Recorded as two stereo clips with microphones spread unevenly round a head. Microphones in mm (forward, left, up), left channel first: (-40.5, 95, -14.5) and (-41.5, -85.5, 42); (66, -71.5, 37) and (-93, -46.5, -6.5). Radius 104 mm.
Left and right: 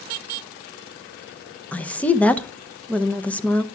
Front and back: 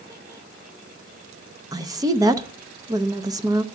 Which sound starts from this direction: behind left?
A woman speaking, at 1.7 s.